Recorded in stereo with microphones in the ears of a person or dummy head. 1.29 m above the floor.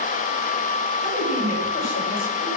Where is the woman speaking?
35° left (ahead or behind), 7.5 m; by 2.5 s 50° left (ahead or behind), 7.5 m.